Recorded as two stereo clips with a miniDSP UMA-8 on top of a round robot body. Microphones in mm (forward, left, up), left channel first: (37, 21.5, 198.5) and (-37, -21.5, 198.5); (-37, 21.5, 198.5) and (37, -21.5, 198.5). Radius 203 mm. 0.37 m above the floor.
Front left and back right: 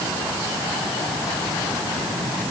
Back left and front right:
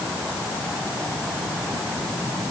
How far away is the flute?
No flute in this recording.